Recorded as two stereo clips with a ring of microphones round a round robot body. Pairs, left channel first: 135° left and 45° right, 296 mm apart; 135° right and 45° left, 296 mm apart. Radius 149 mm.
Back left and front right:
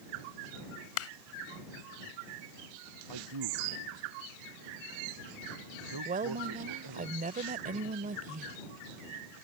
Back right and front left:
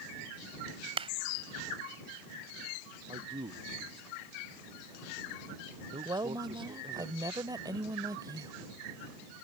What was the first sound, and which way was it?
A clap, 110° left.